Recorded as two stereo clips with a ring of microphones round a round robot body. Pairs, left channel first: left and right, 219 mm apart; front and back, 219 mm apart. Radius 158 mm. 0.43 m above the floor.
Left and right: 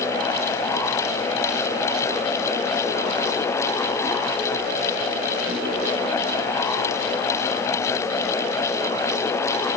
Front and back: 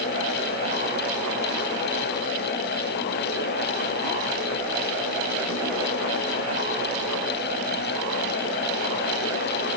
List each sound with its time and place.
Only background noise.